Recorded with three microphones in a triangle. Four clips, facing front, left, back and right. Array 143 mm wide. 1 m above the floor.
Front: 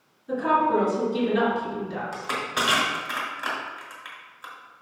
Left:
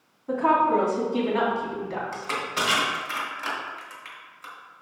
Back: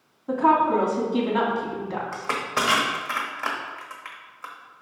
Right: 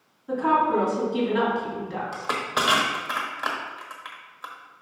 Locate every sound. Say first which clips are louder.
0.3 s a woman speaking: left 1 dB, back 3 dB; 170° left, 2.5 m
2.1 s crushing: right 2 dB, back 2 dB; 130° right, 1.2 m